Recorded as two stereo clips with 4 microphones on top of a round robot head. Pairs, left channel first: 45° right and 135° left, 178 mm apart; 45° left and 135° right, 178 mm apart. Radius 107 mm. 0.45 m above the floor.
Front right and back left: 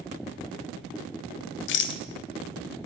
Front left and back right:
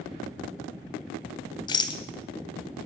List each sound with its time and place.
1.7 s a rattle: 20° right, 0.5 m